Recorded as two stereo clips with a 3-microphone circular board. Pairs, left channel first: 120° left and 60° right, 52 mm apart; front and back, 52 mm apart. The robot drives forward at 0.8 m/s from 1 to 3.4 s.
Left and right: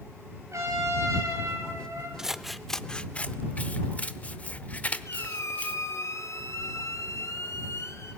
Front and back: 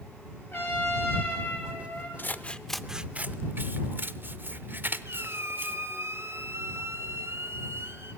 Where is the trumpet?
45° right, 7 m; by 2.1 s 50° right, 6.5 m.